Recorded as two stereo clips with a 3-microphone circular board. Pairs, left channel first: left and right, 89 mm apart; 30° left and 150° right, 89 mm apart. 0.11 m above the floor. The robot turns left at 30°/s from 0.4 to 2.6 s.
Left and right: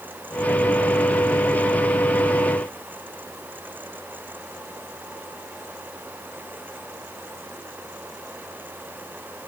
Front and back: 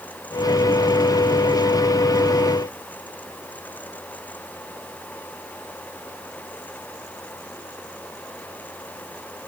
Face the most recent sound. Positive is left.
No sound to turn to.